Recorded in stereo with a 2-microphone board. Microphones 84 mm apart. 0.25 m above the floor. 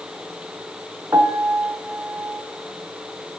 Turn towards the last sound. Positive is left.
turn(degrees=-35)  # may be behind; listen again after turning